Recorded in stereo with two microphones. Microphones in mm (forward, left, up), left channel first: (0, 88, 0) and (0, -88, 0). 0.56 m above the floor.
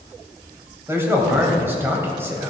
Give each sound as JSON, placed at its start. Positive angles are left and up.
{"t": 0.9, "sound": "a man speaking", "side_deg": -15, "distance_m": 3.0}